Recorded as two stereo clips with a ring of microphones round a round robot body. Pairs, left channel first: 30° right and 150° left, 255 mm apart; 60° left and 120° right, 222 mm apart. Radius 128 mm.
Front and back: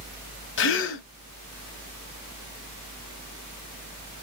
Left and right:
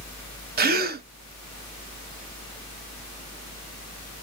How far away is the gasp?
About 0.9 m.